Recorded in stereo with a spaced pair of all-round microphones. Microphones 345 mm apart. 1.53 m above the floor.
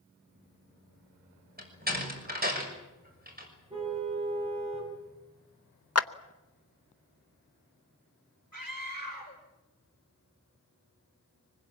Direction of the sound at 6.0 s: 45° left (ahead or behind).